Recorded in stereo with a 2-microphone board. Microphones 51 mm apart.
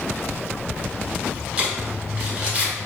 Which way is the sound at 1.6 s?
25° right (ahead or behind).